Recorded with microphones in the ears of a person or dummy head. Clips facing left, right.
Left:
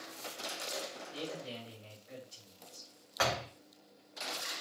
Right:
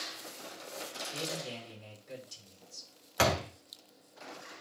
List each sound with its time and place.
1.1 s a man speaking: 75° right (ahead or behind), 5.5 m
3.2 s a door slam: 50° right (ahead or behind), 1.0 m